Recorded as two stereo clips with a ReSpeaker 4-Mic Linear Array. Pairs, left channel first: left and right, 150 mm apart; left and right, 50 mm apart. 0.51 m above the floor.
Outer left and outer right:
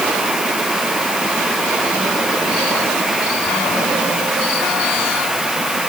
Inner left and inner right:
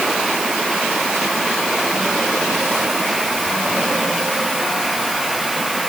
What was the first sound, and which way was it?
Only background noise.